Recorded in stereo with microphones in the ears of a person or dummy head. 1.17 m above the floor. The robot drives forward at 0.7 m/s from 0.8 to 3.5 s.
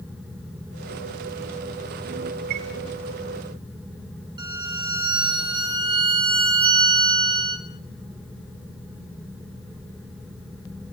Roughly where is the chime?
Right.